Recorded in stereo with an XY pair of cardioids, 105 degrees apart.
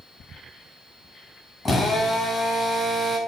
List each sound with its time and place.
1.6 s a drill: 25° left, 6 m